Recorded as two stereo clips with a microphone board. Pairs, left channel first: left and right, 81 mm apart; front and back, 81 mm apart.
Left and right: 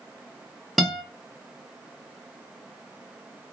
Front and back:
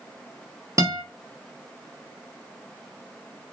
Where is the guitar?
Straight behind, 0.7 m.